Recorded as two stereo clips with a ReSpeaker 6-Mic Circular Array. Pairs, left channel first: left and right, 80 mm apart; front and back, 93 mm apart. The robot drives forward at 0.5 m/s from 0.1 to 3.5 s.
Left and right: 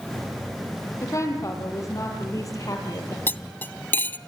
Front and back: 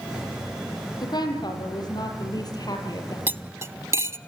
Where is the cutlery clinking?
130° left, 0.6 m; by 4.2 s 140° left, 0.7 m.